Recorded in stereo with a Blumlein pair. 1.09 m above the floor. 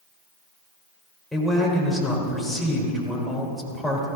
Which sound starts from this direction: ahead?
A man speaking, at 1.3 s.